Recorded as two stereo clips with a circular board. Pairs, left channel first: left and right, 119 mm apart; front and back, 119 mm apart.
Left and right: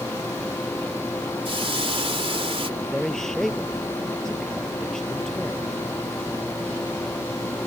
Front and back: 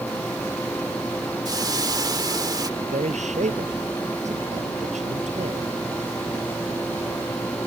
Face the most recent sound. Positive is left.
turn(degrees=175)